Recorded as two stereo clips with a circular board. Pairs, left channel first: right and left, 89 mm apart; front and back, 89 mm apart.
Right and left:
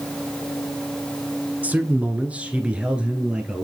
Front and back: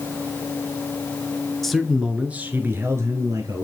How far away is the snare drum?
I don't hear a snare drum.